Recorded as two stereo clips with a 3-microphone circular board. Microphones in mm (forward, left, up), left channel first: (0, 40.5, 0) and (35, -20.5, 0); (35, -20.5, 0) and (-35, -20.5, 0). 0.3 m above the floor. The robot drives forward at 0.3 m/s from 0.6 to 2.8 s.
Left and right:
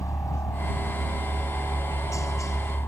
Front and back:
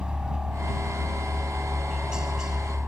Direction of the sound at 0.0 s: 105° left.